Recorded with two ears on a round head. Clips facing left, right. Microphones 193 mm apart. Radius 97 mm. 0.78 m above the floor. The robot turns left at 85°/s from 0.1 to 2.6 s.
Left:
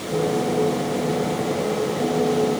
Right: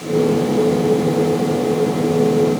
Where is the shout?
No shout in this recording.